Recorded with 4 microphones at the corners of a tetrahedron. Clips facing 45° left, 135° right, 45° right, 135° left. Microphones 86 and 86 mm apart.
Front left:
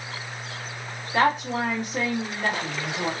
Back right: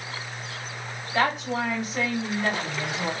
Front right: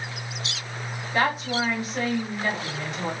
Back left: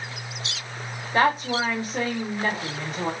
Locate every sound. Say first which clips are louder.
1.1 s a woman speaking: front left 3 dB, back left 3 dB; 90° left, 1.9 m